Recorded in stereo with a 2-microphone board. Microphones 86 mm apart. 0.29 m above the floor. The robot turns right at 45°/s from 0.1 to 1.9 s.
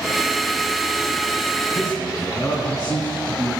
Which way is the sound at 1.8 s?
50° left (ahead or behind).